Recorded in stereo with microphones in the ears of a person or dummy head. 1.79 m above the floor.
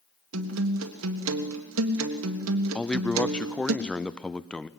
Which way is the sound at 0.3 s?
75° right (ahead or behind).